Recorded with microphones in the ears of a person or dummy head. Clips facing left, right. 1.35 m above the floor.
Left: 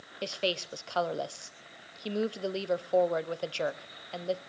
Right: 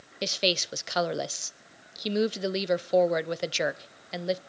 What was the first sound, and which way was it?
A woman speaking, 20° right (ahead or behind).